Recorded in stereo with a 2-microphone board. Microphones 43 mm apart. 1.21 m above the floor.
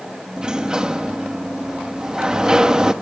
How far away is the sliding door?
About 1.0 m.